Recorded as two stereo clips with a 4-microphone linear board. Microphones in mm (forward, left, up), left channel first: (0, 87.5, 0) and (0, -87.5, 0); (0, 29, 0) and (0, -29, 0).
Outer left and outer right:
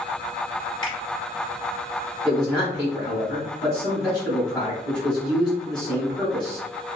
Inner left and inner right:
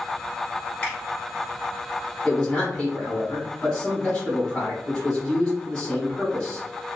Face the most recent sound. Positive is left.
turn(degrees=25)  # may be behind; listen again after turning